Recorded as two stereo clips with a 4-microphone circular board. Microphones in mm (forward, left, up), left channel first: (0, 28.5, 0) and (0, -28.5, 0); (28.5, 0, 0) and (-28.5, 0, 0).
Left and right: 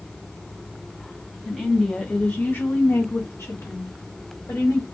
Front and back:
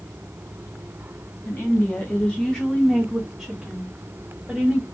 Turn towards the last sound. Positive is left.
turn(degrees=110)